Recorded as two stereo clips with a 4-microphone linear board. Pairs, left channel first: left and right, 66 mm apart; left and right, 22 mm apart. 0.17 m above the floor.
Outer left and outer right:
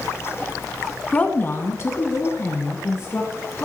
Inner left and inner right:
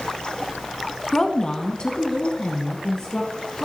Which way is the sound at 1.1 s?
15° left (ahead or behind).